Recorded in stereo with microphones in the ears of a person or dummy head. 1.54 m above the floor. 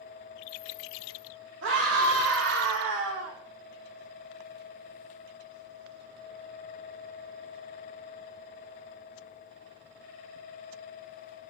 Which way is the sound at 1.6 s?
65° right (ahead or behind).